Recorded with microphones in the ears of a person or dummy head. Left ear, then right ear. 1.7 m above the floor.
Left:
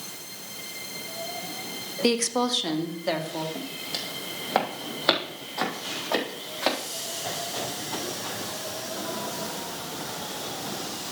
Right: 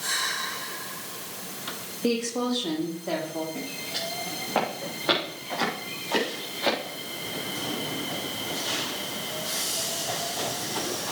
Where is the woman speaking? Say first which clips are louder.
Left 3 dB; 65° left (ahead or behind), 1.0 m; by 3.5 s 75° left (ahead or behind), 1.8 m.